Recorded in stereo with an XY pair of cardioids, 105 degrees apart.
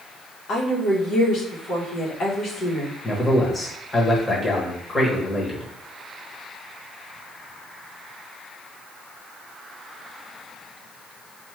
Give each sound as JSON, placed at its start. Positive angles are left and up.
{"t": 0.5, "sound": "a woman speaking", "azimuth_deg": 65, "distance_m": 1.3}
{"t": 3.0, "sound": "a man speaking", "azimuth_deg": 20, "distance_m": 1.3}